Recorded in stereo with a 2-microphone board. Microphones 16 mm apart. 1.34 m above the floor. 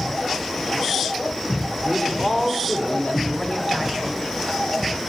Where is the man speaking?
40° left (ahead or behind), 4 m.